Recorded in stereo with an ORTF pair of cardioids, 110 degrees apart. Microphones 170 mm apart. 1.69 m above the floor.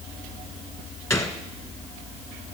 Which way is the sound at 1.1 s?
15° left.